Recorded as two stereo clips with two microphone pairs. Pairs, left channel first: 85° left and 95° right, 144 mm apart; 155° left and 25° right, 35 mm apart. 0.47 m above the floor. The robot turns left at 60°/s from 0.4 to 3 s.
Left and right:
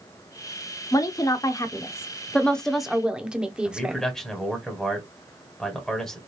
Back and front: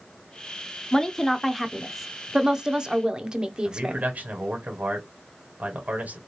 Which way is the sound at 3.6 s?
Straight ahead.